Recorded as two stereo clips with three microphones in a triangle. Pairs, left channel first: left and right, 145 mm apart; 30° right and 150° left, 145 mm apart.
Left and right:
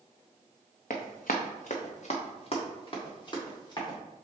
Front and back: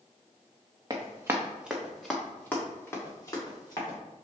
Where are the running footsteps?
90° left, 0.9 m; by 4.0 s 30° left, 2 m.